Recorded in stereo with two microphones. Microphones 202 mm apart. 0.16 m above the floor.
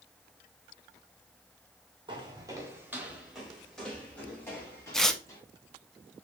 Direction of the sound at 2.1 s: 25° right (ahead or behind).